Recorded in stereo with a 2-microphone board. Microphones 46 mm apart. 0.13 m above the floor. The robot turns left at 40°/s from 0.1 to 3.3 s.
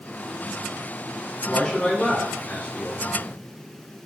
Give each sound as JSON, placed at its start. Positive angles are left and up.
{"t": 1.4, "sound": "a man speaking", "azimuth_deg": 140, "distance_m": 1.8}